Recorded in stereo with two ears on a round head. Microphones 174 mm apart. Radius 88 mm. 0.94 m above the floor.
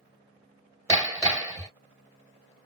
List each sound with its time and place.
0.9 s hammering: 15° right (ahead or behind), 1.6 m